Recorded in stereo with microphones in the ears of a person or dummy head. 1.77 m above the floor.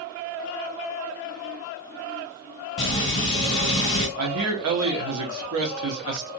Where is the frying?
30° left (ahead or behind), 2.0 m.